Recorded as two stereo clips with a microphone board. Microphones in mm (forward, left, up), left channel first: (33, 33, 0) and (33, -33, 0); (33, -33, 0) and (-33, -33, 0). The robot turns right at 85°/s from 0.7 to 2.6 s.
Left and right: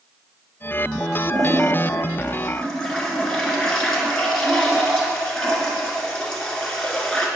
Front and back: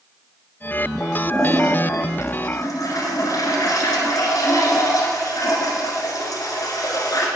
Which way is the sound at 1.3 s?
105° right.